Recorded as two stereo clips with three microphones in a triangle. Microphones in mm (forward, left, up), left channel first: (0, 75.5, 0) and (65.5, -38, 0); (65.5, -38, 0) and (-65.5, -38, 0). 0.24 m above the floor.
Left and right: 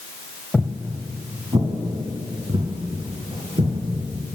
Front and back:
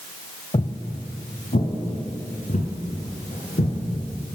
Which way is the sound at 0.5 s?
40° left.